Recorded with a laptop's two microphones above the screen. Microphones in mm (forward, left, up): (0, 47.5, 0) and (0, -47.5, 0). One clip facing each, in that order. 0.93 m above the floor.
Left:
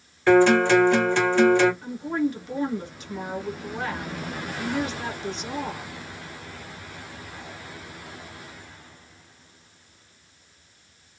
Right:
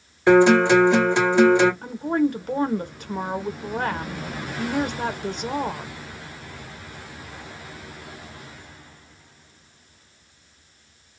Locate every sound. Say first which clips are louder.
0.3 s a guitar: right 2 dB; 15° right (ahead or behind), 1.3 m
1.8 s a woman speaking: right 4 dB; 50° right (ahead or behind), 0.7 m